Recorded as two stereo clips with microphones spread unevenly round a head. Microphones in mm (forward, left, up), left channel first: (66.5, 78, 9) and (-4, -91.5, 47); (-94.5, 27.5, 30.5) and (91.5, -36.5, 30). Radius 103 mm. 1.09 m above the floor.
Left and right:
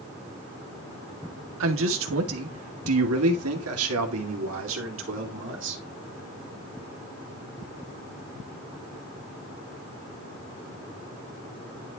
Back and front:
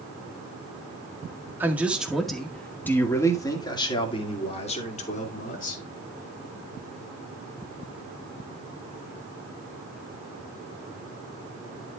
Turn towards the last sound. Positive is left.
turn(degrees=-150)